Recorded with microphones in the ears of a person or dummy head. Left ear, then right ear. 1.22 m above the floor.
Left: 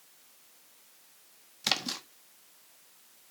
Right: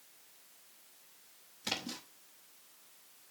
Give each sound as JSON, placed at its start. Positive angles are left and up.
{"t": 1.6, "sound": "a splash", "side_deg": 50, "distance_m": 1.0}